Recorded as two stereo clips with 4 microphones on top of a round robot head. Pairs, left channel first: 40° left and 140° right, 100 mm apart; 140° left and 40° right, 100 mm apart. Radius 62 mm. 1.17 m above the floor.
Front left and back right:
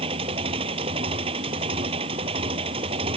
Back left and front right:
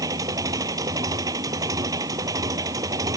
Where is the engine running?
100° right.